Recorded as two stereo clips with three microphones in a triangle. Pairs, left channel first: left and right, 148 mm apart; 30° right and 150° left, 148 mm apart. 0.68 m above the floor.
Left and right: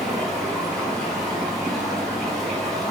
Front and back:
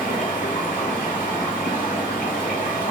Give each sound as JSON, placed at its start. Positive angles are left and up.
{"t": 0.0, "sound": "running water", "azimuth_deg": 0, "distance_m": 1.1}